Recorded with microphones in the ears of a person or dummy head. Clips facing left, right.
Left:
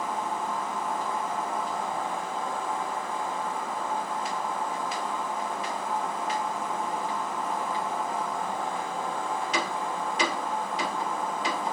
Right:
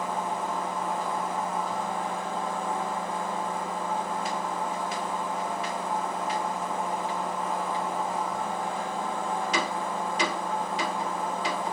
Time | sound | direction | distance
0.0 | a machine running | 20° right (ahead or behind) | 1.9 m